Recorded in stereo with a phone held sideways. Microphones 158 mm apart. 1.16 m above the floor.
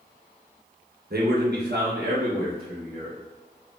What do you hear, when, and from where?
1.1 s a man speaking: 70° right (ahead or behind), 1.1 m; by 3.2 s 50° right (ahead or behind), 1.5 m